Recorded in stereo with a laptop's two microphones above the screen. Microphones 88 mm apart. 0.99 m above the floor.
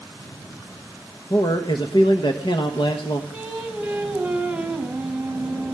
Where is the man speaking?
60° left (ahead or behind), 1.1 m.